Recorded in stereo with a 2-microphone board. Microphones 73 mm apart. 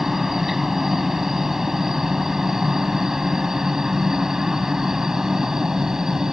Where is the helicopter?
5° right (ahead or behind).